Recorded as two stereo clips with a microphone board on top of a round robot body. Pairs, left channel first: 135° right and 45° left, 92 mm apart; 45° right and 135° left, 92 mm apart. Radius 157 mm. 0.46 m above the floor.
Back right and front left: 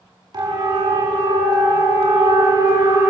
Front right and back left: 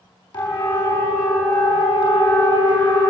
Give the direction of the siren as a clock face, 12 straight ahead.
12 o'clock.